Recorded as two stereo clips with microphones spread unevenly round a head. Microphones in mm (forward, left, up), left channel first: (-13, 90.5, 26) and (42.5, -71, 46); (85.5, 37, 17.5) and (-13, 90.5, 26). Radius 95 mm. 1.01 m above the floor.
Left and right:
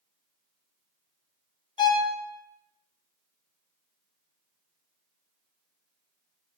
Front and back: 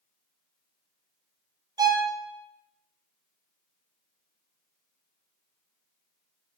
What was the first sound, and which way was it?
A violin, 120° left.